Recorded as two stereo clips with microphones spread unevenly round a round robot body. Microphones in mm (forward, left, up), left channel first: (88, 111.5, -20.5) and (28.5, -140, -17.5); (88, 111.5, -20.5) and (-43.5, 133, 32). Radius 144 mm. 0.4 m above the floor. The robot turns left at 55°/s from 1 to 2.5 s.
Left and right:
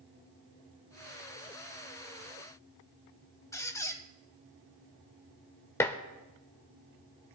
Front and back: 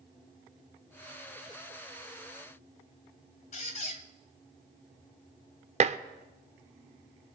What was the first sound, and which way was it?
A squeak, straight ahead.